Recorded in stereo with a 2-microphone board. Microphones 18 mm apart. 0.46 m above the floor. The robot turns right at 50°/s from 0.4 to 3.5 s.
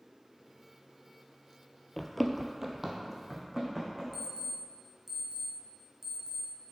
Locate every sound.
2.0 s running footsteps: 25° left (ahead or behind), 0.7 m; by 4.0 s 5° right (ahead or behind), 2.5 m
4.1 s an alarm clock: 20° right (ahead or behind), 1.6 m